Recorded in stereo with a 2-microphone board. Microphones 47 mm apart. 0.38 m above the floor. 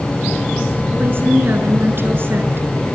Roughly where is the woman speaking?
Right.